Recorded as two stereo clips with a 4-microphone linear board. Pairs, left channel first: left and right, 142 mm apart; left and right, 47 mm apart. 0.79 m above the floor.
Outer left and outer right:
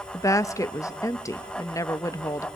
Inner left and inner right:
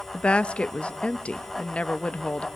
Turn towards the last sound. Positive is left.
turn(degrees=25)  # may be behind; listen again after turning